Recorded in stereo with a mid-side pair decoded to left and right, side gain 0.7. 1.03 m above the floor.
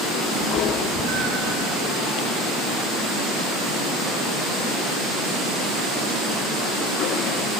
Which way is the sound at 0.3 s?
50° right.